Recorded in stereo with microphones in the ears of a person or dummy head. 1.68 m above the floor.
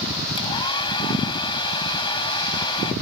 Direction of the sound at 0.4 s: 30° left (ahead or behind).